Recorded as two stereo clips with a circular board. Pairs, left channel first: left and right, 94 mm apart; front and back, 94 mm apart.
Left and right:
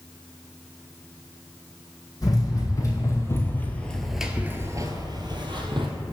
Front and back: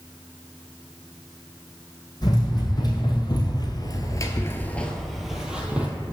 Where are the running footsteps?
40° left, 1.8 m; by 5.9 s 105° right, 1.3 m.